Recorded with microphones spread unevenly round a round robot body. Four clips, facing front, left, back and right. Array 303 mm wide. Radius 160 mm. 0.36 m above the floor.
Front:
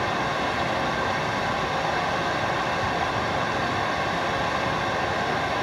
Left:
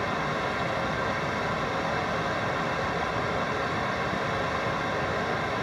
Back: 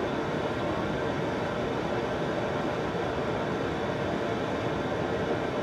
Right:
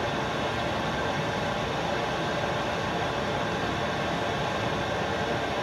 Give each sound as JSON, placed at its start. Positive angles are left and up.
{"t": 0.0, "sound": "running water", "azimuth_deg": -5, "distance_m": 2.0}